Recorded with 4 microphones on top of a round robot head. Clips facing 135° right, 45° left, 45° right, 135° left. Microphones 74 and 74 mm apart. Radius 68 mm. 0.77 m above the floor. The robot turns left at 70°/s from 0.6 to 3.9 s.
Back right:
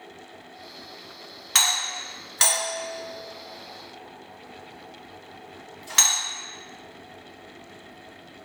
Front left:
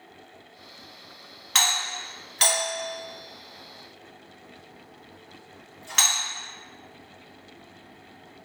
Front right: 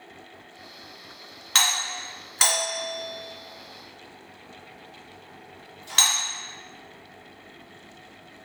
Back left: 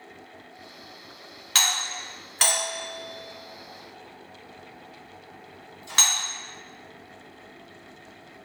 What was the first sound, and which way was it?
A doorbell, 45° right.